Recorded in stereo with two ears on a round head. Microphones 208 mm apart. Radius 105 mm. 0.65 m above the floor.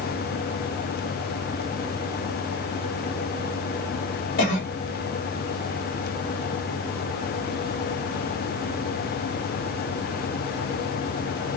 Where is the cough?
40° left (ahead or behind), 1.6 m.